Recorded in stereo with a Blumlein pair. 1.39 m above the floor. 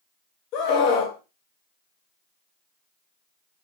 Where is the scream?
40° left, 0.9 m.